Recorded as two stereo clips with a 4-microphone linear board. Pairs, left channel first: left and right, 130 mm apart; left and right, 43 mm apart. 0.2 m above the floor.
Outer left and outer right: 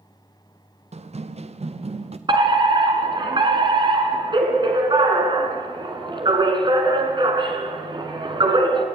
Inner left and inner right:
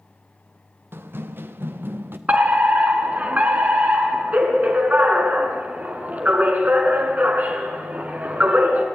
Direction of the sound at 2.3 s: 35° right (ahead or behind).